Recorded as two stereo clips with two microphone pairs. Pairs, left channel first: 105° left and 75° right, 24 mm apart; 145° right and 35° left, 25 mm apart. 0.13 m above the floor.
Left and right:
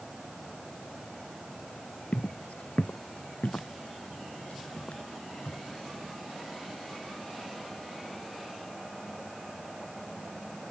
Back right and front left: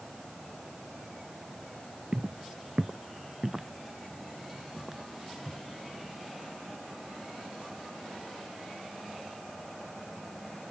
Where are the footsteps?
90° left; by 5.7 s 110° left.